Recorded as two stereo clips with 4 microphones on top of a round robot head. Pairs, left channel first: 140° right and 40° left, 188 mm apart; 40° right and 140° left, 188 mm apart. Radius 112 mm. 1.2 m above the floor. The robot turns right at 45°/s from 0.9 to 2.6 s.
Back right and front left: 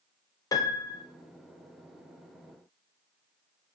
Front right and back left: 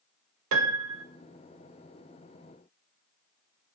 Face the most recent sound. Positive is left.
turn(degrees=-135)